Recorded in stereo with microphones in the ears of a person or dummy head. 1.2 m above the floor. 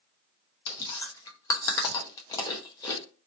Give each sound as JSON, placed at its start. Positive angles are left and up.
{"t": 0.7, "sound": "chewing", "side_deg": 25, "distance_m": 0.6}